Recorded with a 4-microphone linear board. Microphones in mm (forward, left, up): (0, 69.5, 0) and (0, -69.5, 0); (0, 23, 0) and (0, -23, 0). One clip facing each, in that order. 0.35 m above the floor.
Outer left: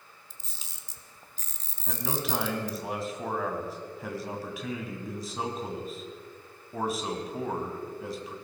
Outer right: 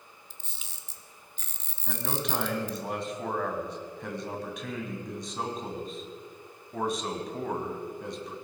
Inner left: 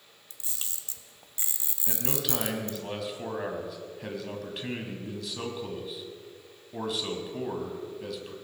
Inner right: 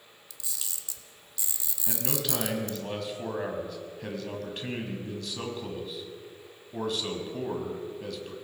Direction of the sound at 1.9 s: 5° left (ahead or behind).